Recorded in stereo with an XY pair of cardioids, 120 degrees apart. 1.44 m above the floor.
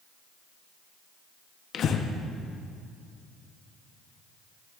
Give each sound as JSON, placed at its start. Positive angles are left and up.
{"t": 1.7, "sound": "breathing", "azimuth_deg": 55, "distance_m": 0.9}